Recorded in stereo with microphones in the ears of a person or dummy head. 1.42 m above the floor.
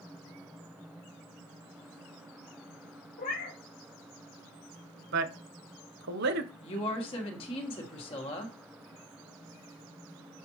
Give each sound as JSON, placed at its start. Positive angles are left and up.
{"t": 3.2, "sound": "a cat meowing", "side_deg": 40, "distance_m": 0.9}
{"t": 5.1, "sound": "a man speaking", "side_deg": -55, "distance_m": 0.7}
{"t": 6.6, "sound": "a woman speaking", "side_deg": 30, "distance_m": 1.3}